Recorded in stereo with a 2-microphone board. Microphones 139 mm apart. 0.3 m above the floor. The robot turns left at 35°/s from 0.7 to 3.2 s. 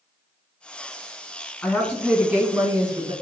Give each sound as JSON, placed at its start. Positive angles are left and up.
{"t": 1.6, "sound": "a woman speaking", "azimuth_deg": 15, "distance_m": 2.0}